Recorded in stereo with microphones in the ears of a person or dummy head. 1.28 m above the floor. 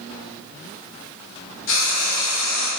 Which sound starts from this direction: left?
Frying, at 1.7 s.